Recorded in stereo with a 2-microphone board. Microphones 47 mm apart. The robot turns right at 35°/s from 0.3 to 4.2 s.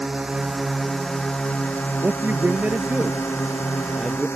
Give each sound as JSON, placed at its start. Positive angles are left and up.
{"t": 0.0, "sound": "a drone", "azimuth_deg": -10}
{"t": 2.0, "sound": "a man speaking", "azimuth_deg": -75}